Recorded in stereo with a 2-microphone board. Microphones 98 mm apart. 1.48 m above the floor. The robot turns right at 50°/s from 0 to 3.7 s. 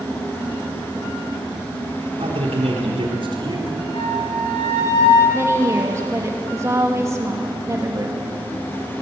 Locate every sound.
2.2 s a man speaking: 115° right, 4.5 m; by 3.8 s 40° right, 4.5 m
3.9 s a flute: 80° left, 6.5 m
5.3 s a woman speaking: 30° right (ahead or behind), 3 m